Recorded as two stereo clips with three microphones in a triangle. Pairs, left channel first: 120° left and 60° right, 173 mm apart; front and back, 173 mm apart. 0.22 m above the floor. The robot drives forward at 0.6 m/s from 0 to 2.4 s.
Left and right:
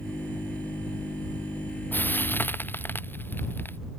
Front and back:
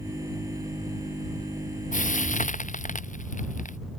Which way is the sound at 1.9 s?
40° left.